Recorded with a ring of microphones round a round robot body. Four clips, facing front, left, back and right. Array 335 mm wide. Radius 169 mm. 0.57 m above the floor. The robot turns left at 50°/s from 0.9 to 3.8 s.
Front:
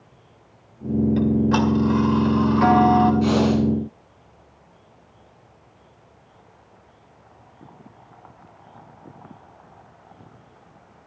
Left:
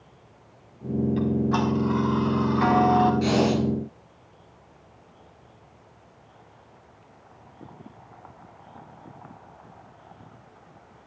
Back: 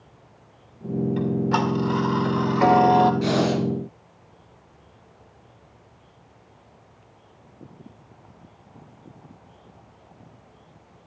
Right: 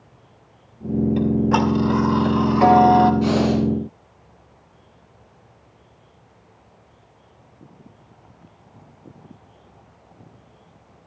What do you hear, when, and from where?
1.2 s ticking: 60° right, 2 m; by 3.1 s 160° right, 2 m
3.2 s breathing: 135° left, 2.5 m; by 3.6 s 110° left, 2.5 m